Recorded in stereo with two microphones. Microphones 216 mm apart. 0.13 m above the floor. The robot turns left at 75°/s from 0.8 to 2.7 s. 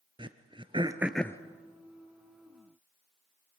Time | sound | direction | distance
0.2 | throat clearing | 20° right (ahead or behind) | 1.0 m